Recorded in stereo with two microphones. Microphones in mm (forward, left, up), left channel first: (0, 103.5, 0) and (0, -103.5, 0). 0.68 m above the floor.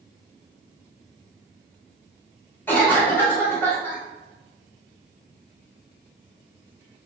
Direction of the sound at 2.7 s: 10° left (ahead or behind).